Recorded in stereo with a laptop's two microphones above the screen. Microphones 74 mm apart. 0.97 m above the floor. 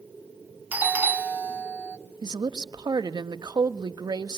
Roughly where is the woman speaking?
Right.